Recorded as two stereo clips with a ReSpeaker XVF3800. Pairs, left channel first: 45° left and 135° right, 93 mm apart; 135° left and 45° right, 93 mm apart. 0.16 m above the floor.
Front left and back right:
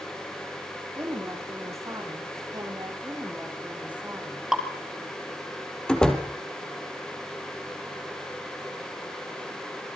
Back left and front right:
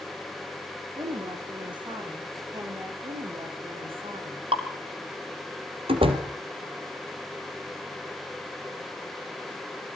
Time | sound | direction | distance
0.9 | a woman speaking | 70° right | 9 m
3.0 | a woman speaking | 60° right | 9 m
4.5 | dripping | 50° right | 4.5 m
5.9 | a door slam | 35° right | 4 m